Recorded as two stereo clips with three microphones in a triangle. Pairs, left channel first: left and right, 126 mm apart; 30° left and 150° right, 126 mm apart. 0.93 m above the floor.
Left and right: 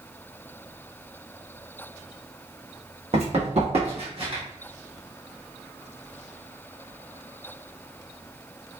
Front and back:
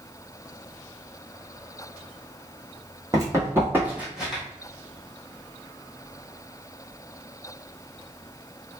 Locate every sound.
3.1 s running footsteps: 90° right, 1.8 m; by 4.4 s 60° right, 1.7 m